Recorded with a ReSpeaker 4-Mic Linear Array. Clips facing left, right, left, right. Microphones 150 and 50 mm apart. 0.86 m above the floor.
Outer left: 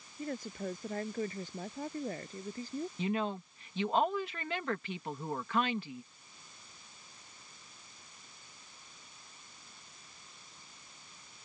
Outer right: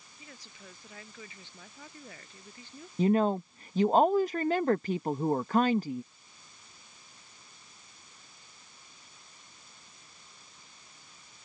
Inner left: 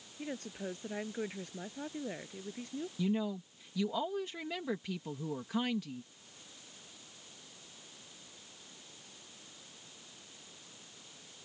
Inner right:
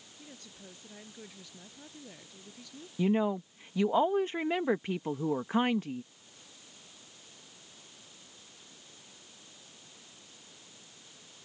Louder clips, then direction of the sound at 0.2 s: Outer left 15 dB, inner left 12 dB; 50° left (ahead or behind).